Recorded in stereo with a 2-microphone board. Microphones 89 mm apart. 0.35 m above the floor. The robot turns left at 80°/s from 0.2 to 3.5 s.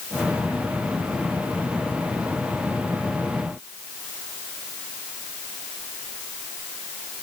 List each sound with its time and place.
Only background noise.